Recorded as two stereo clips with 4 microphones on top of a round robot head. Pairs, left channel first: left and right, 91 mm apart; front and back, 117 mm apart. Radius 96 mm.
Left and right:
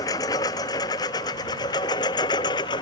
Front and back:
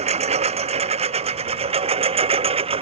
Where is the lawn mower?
150° left; by 2.8 s 145° left.